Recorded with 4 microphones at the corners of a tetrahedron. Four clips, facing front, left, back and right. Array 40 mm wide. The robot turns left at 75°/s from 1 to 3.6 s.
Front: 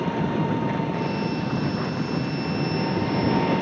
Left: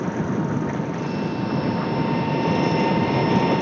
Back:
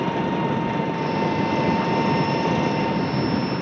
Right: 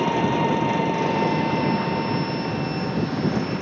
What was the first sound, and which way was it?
An engine running, 105° right.